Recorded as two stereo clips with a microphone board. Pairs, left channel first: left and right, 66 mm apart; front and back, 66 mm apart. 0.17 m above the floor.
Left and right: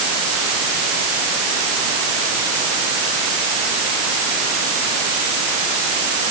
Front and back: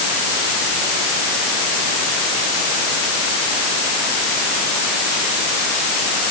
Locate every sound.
Only background noise.